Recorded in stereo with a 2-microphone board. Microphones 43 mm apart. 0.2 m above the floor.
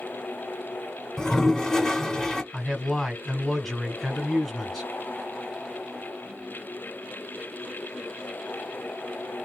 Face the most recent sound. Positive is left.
turn(degrees=10)  # may be behind; listen again after turning